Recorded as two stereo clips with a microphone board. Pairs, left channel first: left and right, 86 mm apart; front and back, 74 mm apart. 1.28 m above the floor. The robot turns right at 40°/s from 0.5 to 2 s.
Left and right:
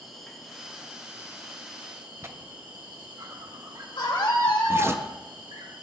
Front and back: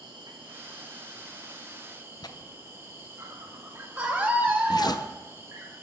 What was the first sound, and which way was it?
An insect, straight behind.